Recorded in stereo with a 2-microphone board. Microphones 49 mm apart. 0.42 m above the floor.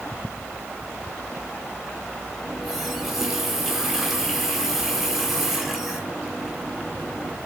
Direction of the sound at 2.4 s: 5° right (ahead or behind).